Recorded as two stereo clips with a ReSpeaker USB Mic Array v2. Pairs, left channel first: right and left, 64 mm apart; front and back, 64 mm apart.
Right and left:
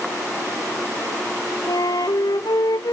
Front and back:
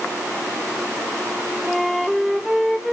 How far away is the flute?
About 0.8 m.